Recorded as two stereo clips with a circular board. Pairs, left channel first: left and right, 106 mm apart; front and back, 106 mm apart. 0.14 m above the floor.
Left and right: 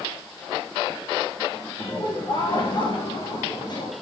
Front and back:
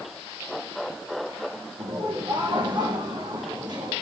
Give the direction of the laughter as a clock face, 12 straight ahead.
8 o'clock.